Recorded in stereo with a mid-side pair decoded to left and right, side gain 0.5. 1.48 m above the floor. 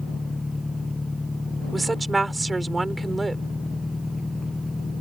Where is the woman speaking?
25° right.